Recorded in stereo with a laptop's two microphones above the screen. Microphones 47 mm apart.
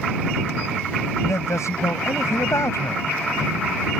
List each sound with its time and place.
1.2 s a man speaking: 85° left